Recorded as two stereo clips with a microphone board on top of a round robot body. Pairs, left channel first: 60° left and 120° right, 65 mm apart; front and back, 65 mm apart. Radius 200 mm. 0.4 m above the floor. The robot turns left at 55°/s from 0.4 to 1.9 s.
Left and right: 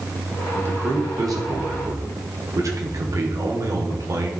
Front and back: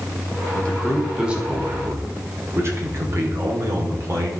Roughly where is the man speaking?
Ahead right.